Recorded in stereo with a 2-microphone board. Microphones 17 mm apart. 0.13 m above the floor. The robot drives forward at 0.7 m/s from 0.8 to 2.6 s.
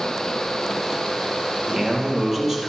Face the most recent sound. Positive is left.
turn(degrees=-25)  # may be behind; listen again after turning